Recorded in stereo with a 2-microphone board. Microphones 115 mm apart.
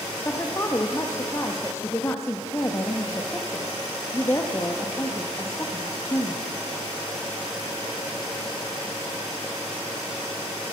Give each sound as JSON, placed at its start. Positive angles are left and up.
{"t": 0.2, "sound": "a woman speaking", "side_deg": 25, "distance_m": 0.7}